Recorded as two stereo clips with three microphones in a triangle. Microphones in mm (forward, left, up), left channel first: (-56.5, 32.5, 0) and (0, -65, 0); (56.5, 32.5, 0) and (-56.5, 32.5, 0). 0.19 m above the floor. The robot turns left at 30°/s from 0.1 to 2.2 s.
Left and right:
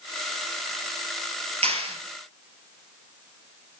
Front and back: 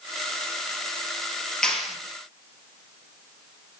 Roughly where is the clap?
Right.